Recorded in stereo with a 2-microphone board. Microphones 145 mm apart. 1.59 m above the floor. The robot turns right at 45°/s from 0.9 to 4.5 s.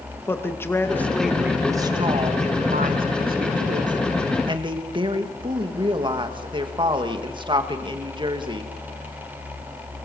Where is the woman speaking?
165° left, 2.5 m; by 8.7 s 35° right, 2.5 m.